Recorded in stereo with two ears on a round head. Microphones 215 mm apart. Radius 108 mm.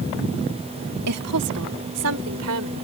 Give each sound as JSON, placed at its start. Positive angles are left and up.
{"t": 1.1, "sound": "a woman speaking", "side_deg": -70}